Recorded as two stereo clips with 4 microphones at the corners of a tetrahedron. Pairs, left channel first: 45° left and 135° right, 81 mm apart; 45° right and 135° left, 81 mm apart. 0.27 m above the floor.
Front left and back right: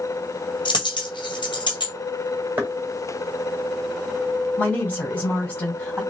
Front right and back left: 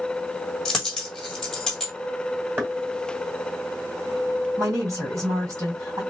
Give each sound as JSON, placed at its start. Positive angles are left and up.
{"t": 0.7, "sound": "a dropped coin", "azimuth_deg": 40, "distance_m": 1.5}
{"t": 2.6, "sound": "knocking", "azimuth_deg": 175, "distance_m": 1.4}
{"t": 4.6, "sound": "a woman speaking", "azimuth_deg": 115, "distance_m": 2.0}